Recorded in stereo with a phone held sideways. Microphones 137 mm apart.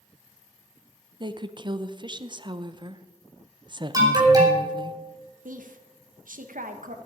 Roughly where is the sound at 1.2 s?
Right.